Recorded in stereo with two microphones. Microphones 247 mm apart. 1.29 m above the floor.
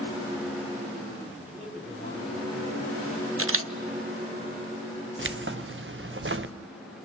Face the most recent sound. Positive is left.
turn(degrees=-55)  # may be behind; listen again after turning